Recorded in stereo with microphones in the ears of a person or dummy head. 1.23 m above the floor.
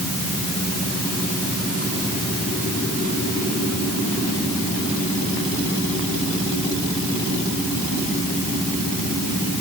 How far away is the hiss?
I don't hear a hiss.